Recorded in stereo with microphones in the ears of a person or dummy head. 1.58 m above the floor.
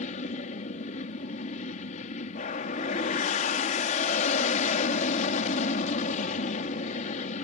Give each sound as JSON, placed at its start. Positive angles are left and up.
{"t": 0.0, "sound": "an aircraft", "side_deg": 45}